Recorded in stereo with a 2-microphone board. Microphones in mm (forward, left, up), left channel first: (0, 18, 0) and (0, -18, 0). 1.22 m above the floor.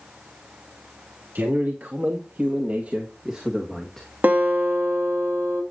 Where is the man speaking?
70° right (ahead or behind), 3 m; by 4.1 s 10° left (ahead or behind), 1.9 m.